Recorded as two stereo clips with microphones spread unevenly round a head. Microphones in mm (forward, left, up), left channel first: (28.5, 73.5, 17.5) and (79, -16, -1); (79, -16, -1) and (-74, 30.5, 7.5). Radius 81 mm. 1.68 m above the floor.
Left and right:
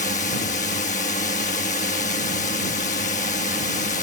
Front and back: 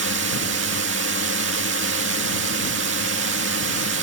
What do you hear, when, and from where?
0.0 s a drone: 150° left